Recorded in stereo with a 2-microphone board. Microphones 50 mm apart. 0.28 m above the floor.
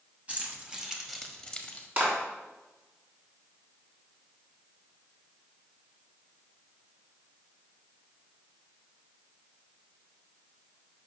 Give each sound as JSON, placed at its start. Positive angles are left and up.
{"t": 0.3, "sound": "keys jangling", "side_deg": -30, "distance_m": 1.5}
{"t": 2.0, "sound": "a clap", "side_deg": -40, "distance_m": 3.0}